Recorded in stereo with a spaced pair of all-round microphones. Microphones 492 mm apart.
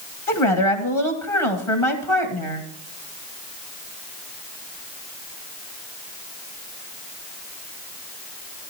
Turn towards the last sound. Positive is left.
turn(degrees=80)